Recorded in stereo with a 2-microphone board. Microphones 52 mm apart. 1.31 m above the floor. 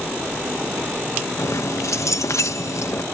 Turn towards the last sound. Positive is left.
turn(degrees=70)  # may be behind; listen again after turning